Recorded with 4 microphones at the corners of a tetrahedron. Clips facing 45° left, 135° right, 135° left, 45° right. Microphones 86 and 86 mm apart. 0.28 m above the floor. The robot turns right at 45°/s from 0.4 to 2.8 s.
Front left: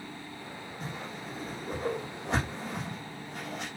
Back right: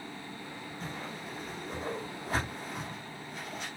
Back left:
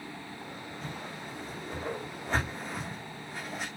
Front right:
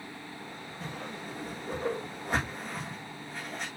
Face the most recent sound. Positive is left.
turn(degrees=55)